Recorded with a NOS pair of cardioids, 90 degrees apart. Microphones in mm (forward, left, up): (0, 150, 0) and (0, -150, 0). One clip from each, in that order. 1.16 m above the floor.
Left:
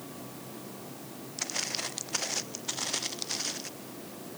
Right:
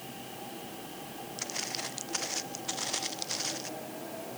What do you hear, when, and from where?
1.4 s footsteps: 30° left; by 3.7 s 5° left